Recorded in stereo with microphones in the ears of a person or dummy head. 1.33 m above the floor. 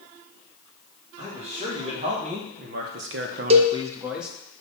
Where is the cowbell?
20° right (ahead or behind), 0.5 m.